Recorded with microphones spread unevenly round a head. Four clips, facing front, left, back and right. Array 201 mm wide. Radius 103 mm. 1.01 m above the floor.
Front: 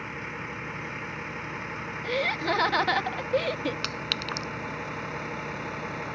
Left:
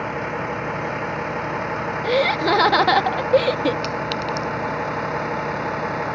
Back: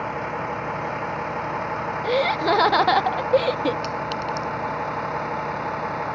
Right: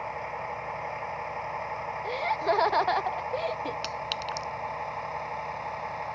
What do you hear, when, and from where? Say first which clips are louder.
0.0 s a vehicle: left 8 dB, back 10 dB; 105° left; by 6.2 s 95° left
2.0 s laughter: left 8 dB, back 7 dB; 110° left
3.8 s a clink: left 9 dB, back 8 dB; 25° left